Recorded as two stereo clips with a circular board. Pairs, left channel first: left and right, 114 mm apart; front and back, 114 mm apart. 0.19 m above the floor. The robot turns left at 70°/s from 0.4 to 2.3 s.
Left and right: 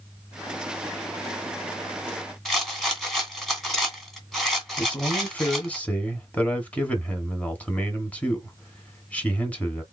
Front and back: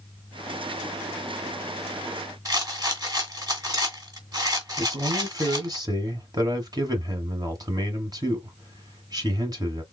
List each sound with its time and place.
2.5 s a rattle: 175° left, 1.8 m
4.8 s a man speaking: 160° left, 1.6 m